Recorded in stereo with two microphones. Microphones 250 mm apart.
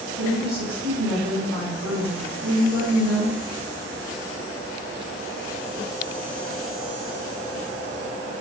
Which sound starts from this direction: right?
A woman speaking, at 0.2 s.